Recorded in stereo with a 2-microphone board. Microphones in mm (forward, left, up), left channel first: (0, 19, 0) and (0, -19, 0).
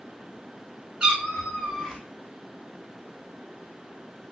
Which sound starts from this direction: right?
A cat meowing, at 1.0 s.